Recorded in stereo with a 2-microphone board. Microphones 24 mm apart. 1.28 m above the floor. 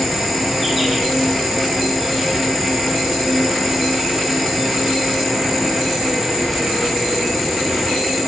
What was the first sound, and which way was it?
An insect, 5° left (ahead or behind).